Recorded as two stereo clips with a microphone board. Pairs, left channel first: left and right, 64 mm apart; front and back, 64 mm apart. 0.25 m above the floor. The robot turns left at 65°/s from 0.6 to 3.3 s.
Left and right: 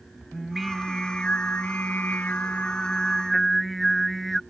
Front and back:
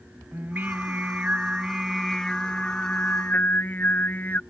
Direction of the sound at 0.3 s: Straight behind.